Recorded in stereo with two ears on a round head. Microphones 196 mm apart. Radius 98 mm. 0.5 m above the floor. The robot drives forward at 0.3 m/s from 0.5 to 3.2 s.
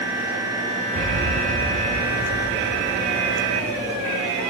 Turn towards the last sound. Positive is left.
turn(degrees=-60)  # may be behind; listen again after turning